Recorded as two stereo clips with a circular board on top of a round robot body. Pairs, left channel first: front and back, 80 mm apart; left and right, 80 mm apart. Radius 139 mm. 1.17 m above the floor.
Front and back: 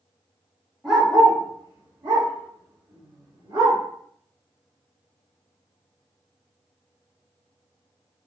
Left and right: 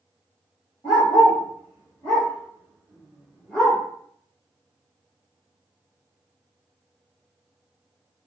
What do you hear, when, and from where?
0.8 s a dog barking: 105° left, 1.0 m; by 3.8 s 165° left, 2 m